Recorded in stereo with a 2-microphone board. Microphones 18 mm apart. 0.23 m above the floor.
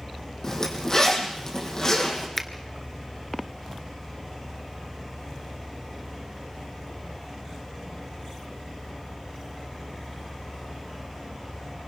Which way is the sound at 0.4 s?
35° left (ahead or behind).